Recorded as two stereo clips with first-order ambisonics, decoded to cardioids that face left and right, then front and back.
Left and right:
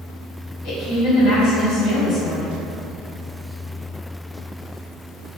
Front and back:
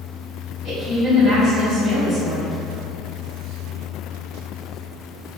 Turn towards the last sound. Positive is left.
turn(degrees=60)